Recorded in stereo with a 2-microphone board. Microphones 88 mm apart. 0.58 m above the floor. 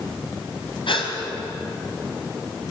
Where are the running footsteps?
I don't hear running footsteps.